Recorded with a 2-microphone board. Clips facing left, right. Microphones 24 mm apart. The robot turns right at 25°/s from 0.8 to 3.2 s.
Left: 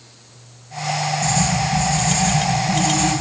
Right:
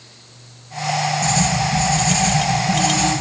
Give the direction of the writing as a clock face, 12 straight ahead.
5 o'clock.